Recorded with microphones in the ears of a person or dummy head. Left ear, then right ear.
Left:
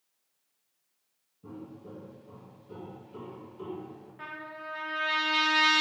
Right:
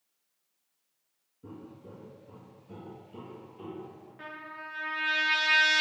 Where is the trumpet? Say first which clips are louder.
Left 1 dB; 5° right (ahead or behind), 0.7 m.